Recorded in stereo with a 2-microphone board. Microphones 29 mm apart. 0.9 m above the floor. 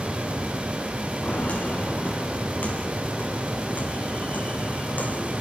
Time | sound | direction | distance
1.2 | footsteps | 55° left (ahead or behind) | 5.5 m